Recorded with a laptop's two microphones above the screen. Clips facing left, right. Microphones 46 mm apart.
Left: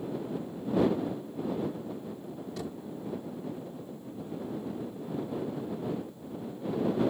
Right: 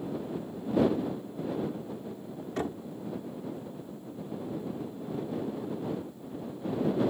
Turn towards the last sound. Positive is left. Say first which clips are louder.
# right 8 dB
turn(degrees=-45)  # may be behind; listen again after turning